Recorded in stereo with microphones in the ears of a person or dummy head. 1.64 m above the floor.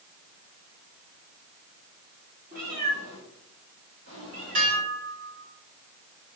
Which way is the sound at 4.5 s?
50° right (ahead or behind).